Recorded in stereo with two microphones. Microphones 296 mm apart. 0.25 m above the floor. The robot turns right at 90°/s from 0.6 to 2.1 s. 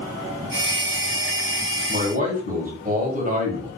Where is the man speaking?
25° right (ahead or behind), 1.5 m.